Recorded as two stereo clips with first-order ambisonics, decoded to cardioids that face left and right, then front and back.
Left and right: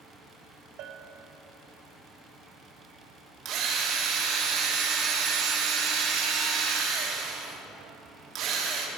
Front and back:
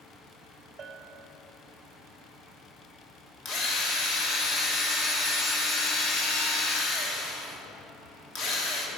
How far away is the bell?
About 0.5 m.